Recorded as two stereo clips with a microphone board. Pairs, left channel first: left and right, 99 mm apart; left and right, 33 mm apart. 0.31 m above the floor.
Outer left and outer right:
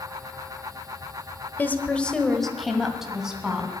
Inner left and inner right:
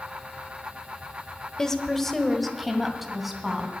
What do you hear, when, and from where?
1.6 s a woman speaking: 20° left (ahead or behind), 1.0 m; by 3.8 s 10° right (ahead or behind), 2.5 m